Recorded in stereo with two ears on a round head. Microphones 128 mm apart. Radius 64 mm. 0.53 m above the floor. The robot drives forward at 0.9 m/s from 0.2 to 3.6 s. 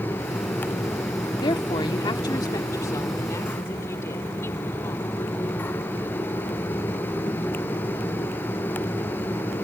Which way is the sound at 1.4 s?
35° left (ahead or behind).